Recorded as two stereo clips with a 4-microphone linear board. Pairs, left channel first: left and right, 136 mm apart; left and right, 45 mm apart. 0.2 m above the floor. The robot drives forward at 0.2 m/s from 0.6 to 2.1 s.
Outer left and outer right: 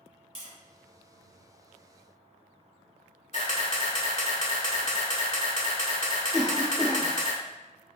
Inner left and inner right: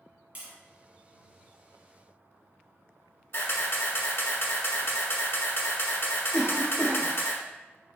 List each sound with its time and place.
0.3 s tapping: 35° right (ahead or behind), 1.4 m
3.3 s a camera shutter: 60° left (ahead or behind), 0.8 m
6.3 s a cough: centre (ahead or behind), 2.0 m